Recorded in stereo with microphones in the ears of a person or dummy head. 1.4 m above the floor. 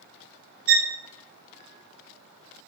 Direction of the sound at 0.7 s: 55° right (ahead or behind).